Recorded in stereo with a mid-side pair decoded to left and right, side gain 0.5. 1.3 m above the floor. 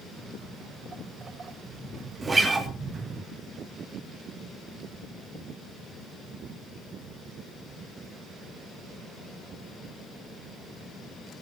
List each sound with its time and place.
0.2 s footsteps: 40° right, 5.5 m
2.2 s a guitar: 25° right, 3 m